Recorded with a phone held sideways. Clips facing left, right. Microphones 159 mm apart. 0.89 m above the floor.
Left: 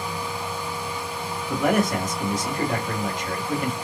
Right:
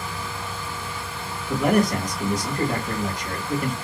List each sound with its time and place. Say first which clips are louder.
0.0 s a fan: left 3 dB; 15° left (ahead or behind), 0.8 m
1.5 s a man speaking: right 2 dB; 10° right (ahead or behind), 1.5 m